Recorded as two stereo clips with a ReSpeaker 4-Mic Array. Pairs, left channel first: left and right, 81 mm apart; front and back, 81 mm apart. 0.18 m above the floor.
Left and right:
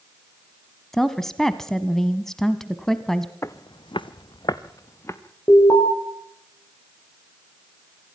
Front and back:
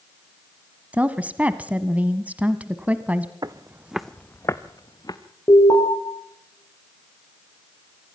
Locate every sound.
0.9 s a woman speaking: 165° left, 1.0 m
3.4 s footsteps: 145° left, 1.0 m; by 5.2 s 35° left, 2 m
5.5 s an alarm: 40° left, 7 m